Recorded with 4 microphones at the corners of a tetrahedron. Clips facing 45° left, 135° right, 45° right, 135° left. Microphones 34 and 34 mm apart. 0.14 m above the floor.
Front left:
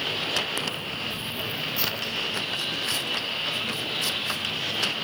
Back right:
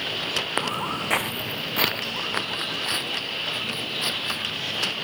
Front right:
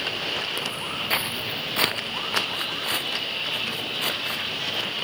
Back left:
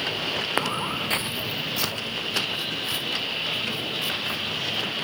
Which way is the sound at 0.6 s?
170° left.